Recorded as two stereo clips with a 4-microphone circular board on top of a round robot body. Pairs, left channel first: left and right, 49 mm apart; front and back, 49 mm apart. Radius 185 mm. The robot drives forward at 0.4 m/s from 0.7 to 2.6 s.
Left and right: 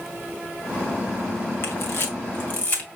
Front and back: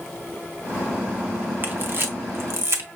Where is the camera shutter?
130° left, 0.8 m; by 2.9 s 145° left, 1.0 m.